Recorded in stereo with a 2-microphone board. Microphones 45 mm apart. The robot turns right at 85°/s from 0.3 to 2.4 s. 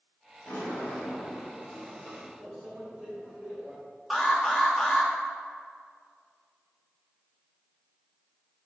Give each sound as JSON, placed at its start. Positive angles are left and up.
{"t": 0.5, "sound": "a sliding door", "azimuth_deg": 55, "distance_m": 3.0}
{"t": 2.4, "sound": "a microwave", "side_deg": -30, "distance_m": 2.5}
{"t": 4.1, "sound": "an alarm", "side_deg": 0, "distance_m": 1.7}